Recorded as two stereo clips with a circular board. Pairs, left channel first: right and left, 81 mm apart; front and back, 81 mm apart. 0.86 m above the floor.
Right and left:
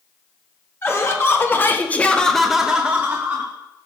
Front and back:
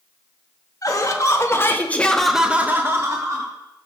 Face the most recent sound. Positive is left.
turn(degrees=150)